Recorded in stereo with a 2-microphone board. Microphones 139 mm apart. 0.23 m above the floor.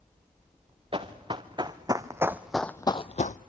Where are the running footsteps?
40° right (ahead or behind), 1.9 m; by 3.4 s 70° left (ahead or behind), 0.7 m.